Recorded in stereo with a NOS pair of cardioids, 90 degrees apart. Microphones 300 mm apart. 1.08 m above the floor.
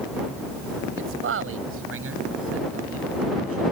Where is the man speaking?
45° right.